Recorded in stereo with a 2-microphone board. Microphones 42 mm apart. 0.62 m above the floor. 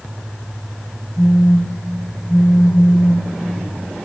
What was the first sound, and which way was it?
A phone buzzing, 60° left (ahead or behind).